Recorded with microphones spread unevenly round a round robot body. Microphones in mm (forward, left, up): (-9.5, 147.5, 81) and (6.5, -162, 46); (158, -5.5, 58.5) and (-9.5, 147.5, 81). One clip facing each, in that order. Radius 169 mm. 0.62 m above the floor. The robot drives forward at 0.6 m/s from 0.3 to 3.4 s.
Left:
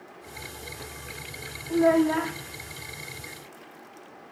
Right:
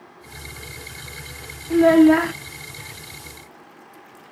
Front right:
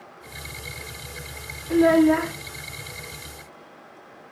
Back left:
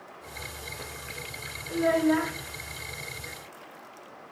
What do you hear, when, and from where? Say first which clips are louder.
1.7 s a child speaking: right 9 dB, front right 7 dB; 50° right, 0.6 m; by 2.3 s 95° right, 0.5 m